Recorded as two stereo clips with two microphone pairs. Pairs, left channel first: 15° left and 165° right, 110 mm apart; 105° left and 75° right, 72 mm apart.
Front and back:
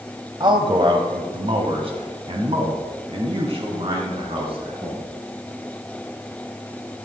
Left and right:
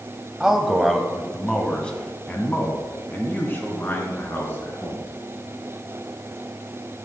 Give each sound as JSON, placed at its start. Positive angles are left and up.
{"t": 0.4, "sound": "a man speaking", "azimuth_deg": -150, "distance_m": 1.2}